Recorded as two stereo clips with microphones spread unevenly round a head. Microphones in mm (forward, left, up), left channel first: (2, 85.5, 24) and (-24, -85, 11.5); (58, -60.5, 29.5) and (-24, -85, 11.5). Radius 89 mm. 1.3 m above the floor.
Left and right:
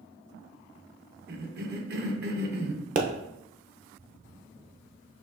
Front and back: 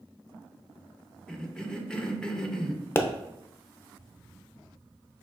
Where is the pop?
50° right, 0.6 m.